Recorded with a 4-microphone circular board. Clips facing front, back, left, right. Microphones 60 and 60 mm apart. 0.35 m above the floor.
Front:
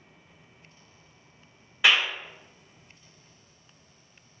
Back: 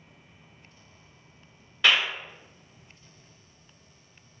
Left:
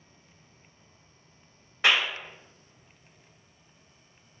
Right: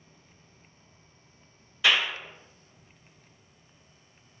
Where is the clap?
70° left, 1.6 m.